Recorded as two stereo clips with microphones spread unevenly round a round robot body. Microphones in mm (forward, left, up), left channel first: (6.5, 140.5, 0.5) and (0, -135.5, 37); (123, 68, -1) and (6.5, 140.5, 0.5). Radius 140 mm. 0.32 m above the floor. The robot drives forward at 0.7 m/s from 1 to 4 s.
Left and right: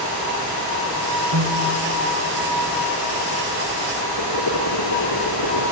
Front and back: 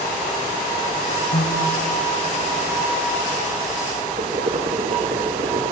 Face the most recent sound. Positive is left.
turn(degrees=110)